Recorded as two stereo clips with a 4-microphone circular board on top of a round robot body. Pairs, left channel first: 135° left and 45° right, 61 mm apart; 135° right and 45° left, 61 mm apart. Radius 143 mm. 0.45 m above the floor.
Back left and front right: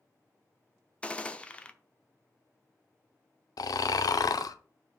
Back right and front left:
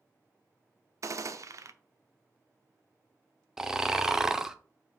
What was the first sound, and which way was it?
A gunshot, 65° left.